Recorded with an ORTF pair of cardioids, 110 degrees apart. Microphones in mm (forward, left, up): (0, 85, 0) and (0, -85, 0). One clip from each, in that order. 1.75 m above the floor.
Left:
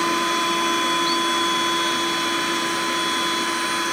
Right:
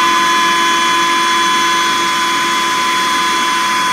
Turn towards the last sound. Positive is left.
turn(degrees=-65)